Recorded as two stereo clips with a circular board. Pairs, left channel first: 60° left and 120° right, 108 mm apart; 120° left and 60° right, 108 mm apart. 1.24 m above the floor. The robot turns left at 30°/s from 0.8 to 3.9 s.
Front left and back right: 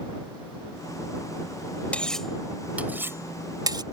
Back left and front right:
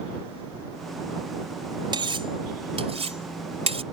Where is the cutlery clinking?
20° right; by 3.8 s 75° right.